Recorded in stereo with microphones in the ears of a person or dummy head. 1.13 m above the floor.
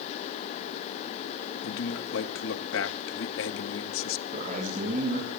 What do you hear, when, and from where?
1.6 s a man speaking: 70° left (ahead or behind), 1.8 m
4.3 s a man speaking: 45° right (ahead or behind), 8 m